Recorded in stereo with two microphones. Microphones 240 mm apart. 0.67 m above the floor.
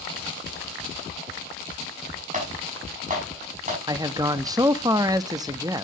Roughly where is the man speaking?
Centre.